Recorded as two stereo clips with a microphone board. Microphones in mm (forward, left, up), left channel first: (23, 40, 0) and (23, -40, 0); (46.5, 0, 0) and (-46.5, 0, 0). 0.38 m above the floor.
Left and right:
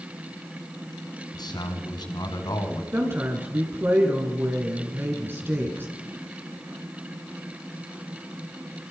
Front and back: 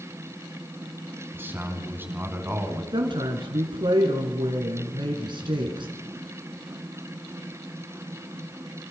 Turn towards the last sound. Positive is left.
turn(degrees=-150)